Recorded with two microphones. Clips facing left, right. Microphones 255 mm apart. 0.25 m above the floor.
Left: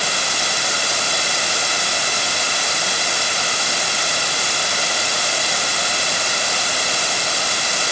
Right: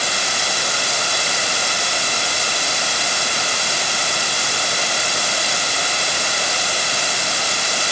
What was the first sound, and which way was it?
Only background noise.